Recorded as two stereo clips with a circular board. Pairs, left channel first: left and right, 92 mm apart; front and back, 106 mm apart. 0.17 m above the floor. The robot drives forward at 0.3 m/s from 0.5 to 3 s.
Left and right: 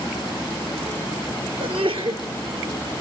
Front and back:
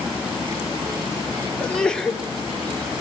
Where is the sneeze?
80° right, 3 m; by 2.2 s 85° right, 3 m.